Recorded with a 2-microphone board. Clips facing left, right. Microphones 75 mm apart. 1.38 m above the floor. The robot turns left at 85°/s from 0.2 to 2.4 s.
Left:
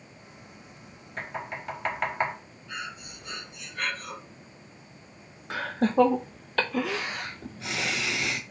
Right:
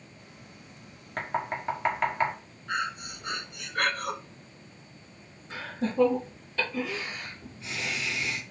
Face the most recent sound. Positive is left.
turn(degrees=75)  # may be behind; listen again after turning